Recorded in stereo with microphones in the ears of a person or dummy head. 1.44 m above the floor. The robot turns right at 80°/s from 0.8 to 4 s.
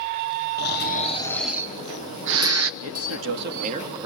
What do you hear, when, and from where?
0.6 s snoring: 130° left, 1.1 m; by 2.7 s 75° right, 1.1 m
2.8 s a man speaking: 105° right, 2.0 m; by 4.1 s 10° right, 2.0 m